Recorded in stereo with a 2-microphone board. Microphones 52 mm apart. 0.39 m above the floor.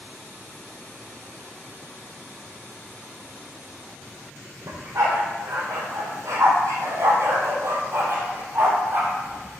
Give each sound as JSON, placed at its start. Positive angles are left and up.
{"t": 4.7, "sound": "a dog barking", "side_deg": -85, "distance_m": 4.0}